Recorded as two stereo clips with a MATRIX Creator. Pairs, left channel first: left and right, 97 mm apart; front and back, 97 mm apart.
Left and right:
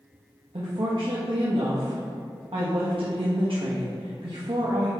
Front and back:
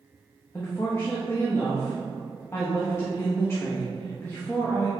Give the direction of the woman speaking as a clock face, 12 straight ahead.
2 o'clock.